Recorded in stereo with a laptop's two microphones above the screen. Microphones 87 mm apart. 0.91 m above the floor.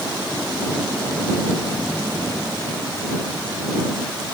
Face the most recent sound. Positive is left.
No sound to turn to.